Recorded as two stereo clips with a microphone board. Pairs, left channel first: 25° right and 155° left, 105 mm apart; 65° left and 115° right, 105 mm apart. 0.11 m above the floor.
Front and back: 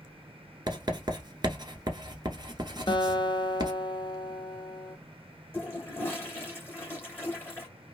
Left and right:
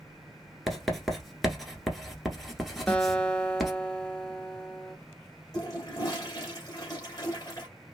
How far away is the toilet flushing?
About 2.0 m.